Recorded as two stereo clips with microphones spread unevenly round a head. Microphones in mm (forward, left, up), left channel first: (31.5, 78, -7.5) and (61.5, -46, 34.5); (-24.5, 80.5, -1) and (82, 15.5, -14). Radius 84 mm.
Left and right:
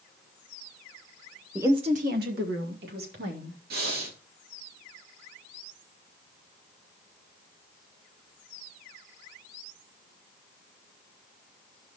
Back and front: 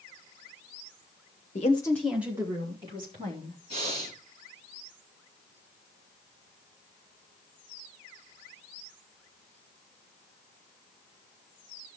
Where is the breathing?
90° right, 1.9 m.